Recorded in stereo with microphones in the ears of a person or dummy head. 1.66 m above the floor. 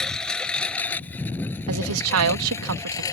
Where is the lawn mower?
5° left (ahead or behind); by 3.1 s 20° left (ahead or behind).